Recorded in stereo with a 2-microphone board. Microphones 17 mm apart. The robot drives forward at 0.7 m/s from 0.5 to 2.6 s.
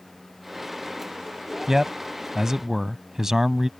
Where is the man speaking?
35° right (ahead or behind); by 3.7 s 30° right (ahead or behind).